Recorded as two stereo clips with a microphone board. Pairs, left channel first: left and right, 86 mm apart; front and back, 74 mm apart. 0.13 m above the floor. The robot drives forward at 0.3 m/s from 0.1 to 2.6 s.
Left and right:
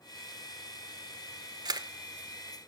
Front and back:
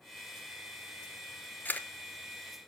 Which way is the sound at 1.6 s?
60° right.